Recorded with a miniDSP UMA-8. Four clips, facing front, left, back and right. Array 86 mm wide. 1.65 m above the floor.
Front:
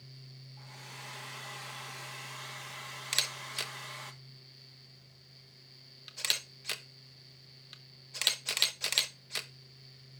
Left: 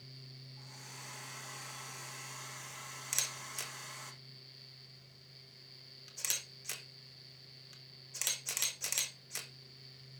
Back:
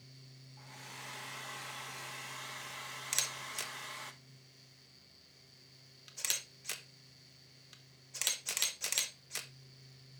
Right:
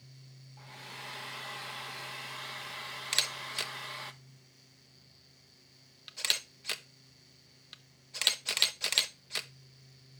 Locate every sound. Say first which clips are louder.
0.6 s a hair dryer: right 7 dB, front 1 dB; 85° right, 0.9 m
3.1 s a camera shutter: right 8 dB, front 4 dB; 55° right, 0.8 m